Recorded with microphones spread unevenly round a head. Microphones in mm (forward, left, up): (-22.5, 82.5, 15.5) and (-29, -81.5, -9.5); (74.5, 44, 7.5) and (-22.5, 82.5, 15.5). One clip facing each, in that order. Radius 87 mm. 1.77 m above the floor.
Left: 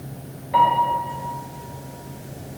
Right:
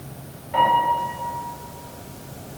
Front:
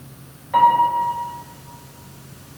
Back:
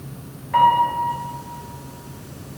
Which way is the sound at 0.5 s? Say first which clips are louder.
Left 1 dB, front 1 dB; 55° left.